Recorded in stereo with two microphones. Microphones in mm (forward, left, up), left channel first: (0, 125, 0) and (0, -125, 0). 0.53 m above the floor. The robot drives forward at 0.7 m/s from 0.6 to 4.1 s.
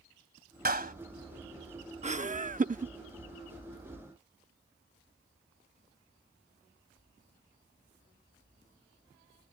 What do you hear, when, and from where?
0.7 s a clap: 40° right (ahead or behind); by 0.9 s 35° right (ahead or behind)
2.0 s laughter: 25° right (ahead or behind); by 2.9 s 30° right (ahead or behind)